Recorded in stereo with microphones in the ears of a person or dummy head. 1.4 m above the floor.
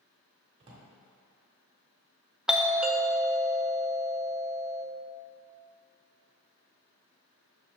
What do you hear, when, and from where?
0.6 s a drawer: 25° right (ahead or behind), 1.5 m
2.5 s a doorbell: 5° right (ahead or behind), 0.6 m